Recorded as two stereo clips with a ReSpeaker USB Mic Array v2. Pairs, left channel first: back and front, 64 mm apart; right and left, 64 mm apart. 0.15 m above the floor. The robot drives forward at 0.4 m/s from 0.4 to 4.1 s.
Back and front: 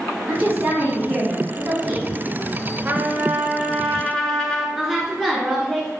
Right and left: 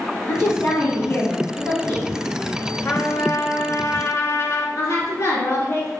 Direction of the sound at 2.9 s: 50° right.